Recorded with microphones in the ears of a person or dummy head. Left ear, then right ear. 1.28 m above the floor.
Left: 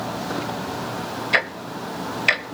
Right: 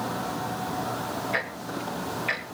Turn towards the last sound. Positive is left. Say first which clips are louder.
# left 8 dB
turn(degrees=65)  # may be behind; listen again after turning